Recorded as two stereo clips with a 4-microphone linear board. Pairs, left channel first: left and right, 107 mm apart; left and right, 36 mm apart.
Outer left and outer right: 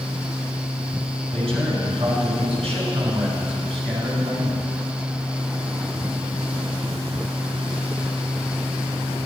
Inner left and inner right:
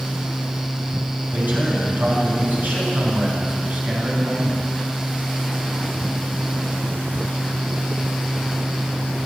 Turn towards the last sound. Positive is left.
turn(degrees=-65)  # may be behind; listen again after turning